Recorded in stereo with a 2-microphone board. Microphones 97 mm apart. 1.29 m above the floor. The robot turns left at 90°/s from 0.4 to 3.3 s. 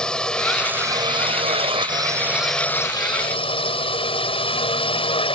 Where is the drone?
10° left; by 5.4 s 110° left.